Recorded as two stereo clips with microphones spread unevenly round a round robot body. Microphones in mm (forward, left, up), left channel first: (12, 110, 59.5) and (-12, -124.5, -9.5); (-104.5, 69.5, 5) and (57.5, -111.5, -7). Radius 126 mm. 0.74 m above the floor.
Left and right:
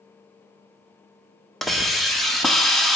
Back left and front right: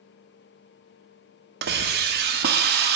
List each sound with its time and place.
1.6 s a hiss: 20° right, 0.8 m